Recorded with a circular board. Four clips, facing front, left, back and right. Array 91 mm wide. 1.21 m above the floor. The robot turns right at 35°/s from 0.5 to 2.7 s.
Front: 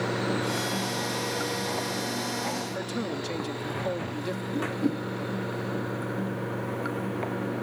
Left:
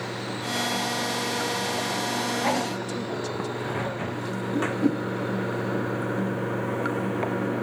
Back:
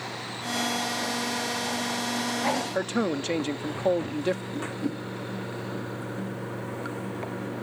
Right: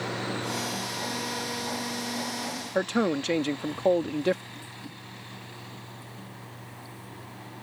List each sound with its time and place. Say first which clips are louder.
0.0 s running water: even, front 8 dB; straight ahead; by 7.6 s 80° left
2.8 s a man speaking: right 5 dB, back 5 dB; 125° right
4.5 s a whoosh: left 20 dB, front 3 dB; 75° left